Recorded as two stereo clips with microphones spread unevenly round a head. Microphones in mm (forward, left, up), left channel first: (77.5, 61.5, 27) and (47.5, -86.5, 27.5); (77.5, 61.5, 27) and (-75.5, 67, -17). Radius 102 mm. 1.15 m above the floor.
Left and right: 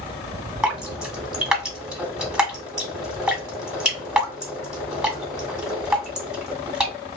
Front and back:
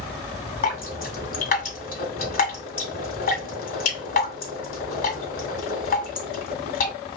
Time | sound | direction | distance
0.6 | dripping | 15° right | 2 m